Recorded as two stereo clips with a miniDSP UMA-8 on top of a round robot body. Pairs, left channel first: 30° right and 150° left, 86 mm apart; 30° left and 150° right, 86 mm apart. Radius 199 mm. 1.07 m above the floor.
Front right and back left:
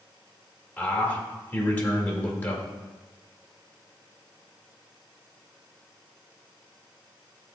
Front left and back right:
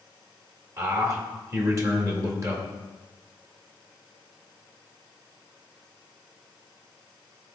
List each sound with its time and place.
0.8 s a man speaking: 100° right, 2.5 m